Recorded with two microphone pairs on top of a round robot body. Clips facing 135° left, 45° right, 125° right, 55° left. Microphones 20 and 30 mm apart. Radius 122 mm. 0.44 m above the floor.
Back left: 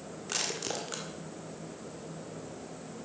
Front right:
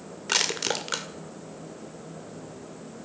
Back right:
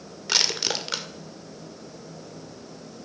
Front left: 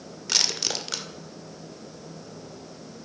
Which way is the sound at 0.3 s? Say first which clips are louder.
Front right 9 dB, back right 2 dB; 55° right.